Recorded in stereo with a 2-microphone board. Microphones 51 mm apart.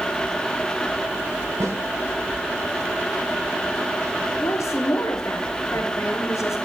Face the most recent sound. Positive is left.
turn(degrees=90)